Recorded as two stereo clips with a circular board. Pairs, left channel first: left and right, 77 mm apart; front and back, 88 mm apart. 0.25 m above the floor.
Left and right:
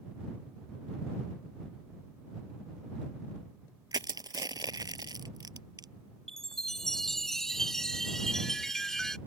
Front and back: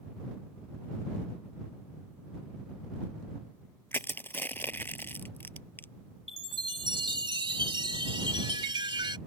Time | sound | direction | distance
3.9 | crushing | 65° right | ?
6.3 | a chime | 175° left | ?